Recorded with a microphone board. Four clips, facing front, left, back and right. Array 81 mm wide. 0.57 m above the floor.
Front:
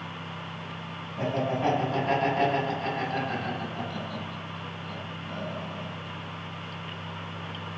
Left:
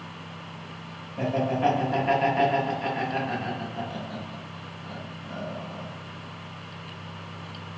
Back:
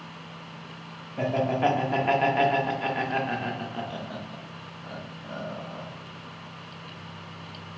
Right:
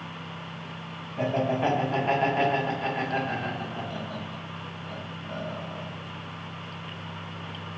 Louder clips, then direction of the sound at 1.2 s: Left 1 dB, back 3 dB; straight behind.